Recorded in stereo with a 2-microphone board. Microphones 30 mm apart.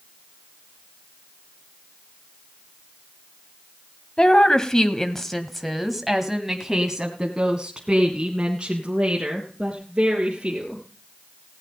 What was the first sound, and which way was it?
A woman speaking, 30° left (ahead or behind).